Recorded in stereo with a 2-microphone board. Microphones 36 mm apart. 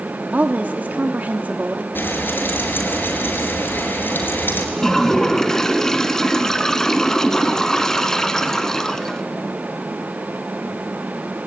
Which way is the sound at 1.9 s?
65° left (ahead or behind).